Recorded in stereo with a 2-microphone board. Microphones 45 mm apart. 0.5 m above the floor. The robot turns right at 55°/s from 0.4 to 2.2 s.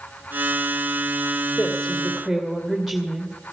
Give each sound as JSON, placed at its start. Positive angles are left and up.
{"t": 1.6, "sound": "a woman speaking", "azimuth_deg": 150, "distance_m": 2.0}